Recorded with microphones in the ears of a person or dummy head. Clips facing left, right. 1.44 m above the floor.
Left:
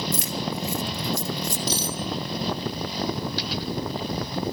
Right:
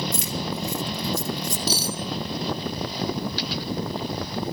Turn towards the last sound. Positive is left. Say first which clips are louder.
# right 1 dB
turn(degrees=-5)  # may be behind; listen again after turning